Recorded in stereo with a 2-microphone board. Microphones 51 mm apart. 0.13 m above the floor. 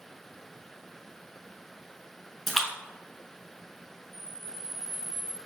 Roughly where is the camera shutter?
Centre.